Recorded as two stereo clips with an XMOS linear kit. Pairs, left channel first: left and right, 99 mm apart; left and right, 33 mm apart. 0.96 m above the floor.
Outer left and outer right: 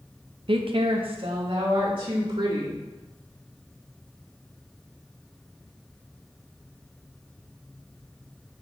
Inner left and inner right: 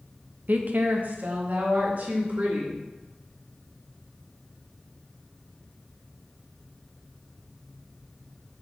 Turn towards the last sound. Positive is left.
turn(degrees=-60)  # may be behind; listen again after turning